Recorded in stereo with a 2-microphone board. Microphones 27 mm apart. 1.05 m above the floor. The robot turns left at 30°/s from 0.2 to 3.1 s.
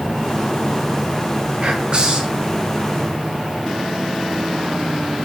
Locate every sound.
1.6 s whispering: 45° right (ahead or behind), 0.5 m; by 2.4 s 30° right (ahead or behind), 0.5 m